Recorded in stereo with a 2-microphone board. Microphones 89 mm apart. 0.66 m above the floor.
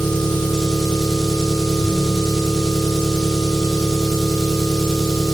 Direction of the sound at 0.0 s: 5° left (ahead or behind).